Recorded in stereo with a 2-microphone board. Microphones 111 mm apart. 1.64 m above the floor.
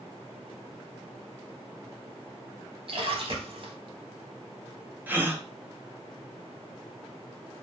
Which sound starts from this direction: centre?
A gasp, at 5.1 s.